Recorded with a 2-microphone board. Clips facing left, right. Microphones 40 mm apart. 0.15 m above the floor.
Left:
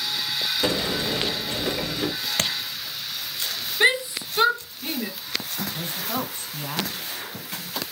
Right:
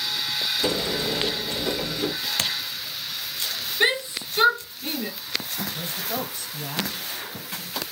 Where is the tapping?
45° left (ahead or behind), 0.8 m.